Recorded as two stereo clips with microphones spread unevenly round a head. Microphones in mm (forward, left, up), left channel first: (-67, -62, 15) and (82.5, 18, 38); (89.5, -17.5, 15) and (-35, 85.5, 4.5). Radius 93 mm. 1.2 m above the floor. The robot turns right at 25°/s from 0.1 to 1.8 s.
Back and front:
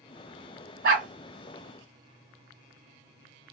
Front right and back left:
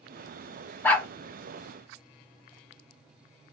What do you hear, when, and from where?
0.8 s a dog barking: 35° left, 3 m; by 1.1 s 40° left, 3 m